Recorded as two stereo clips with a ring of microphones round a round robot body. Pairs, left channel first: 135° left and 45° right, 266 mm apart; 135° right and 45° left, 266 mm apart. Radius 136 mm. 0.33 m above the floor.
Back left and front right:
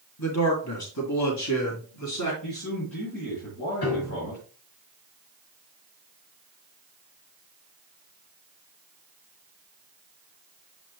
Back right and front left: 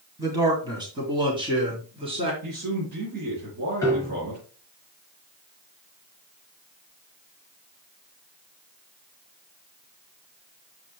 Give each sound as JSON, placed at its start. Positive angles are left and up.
{"t": 0.2, "sound": "a man speaking", "azimuth_deg": 120, "distance_m": 2.0}
{"t": 2.4, "sound": "a man speaking", "azimuth_deg": 95, "distance_m": 5.0}
{"t": 3.8, "sound": "a piano", "azimuth_deg": 145, "distance_m": 3.5}